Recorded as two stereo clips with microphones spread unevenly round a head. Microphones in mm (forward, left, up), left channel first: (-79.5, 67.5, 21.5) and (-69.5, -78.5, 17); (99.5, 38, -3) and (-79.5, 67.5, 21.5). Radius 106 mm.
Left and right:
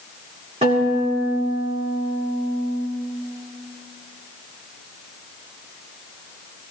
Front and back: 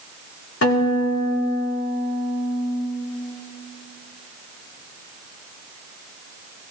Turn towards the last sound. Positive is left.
turn(degrees=-20)